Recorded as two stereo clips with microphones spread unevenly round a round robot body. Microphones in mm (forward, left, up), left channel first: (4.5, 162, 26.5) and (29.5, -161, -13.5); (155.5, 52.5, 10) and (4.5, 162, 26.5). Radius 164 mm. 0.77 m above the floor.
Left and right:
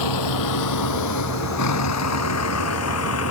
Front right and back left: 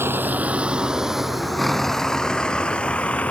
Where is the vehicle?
65° left; by 3.3 s 45° left.